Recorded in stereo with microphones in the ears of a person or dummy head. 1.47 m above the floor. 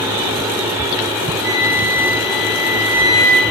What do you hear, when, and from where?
1.4 s a flute: 80° right, 1.8 m